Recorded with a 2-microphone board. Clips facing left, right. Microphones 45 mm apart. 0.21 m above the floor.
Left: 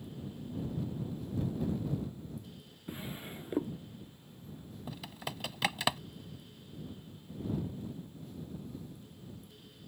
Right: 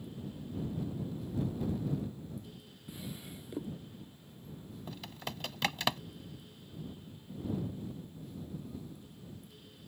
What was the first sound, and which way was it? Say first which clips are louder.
A drawer: left 3 dB; 35° left (ahead or behind).